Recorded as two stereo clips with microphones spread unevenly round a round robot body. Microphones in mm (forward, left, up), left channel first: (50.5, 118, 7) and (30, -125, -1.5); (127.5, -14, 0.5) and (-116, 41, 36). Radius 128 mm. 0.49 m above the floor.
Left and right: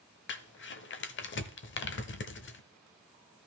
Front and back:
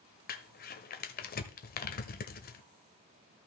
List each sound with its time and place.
0.3 s crumpling: 40° left, 0.8 m